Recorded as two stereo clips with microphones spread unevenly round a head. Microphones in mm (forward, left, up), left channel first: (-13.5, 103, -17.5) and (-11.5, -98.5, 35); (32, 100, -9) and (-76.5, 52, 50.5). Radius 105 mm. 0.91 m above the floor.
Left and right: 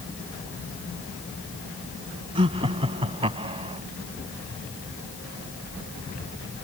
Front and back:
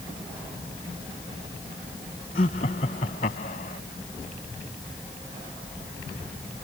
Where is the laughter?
25° right.